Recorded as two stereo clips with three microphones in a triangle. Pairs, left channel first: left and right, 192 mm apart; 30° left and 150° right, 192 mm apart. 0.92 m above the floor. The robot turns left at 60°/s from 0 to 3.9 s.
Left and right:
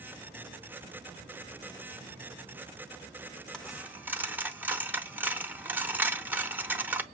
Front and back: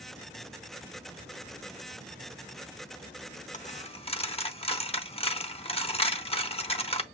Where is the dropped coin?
10° left, 0.6 m; by 7.0 s 15° right, 0.6 m.